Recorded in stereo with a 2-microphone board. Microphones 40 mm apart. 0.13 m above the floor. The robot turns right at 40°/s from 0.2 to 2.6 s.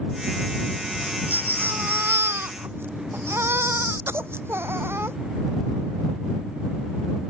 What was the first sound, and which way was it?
A baby crying, 145° right.